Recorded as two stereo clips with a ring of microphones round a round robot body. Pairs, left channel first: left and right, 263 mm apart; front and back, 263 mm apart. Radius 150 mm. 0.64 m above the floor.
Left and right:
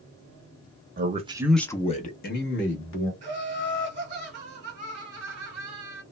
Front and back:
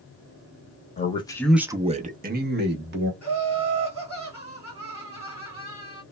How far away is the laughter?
About 1.3 m.